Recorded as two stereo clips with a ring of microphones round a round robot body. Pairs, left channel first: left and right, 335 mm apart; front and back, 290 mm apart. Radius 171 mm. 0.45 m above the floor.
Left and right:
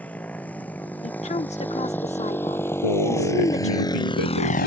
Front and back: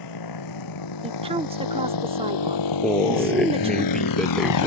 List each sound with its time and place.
0.0 s a motorcycle: 5° left; by 4.7 s 25° left
1.0 s a woman speaking: 135° left
2.8 s a man speaking: 90° left